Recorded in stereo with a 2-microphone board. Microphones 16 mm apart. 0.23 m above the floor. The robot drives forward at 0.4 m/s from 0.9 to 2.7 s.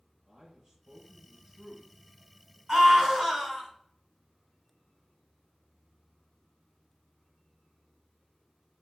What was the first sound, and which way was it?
A man speaking, 45° right (ahead or behind).